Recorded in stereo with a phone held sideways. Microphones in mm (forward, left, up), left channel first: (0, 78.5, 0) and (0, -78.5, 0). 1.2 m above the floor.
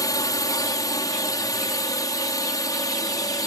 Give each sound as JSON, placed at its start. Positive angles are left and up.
{"t": 0.0, "sound": "a drone", "side_deg": 25}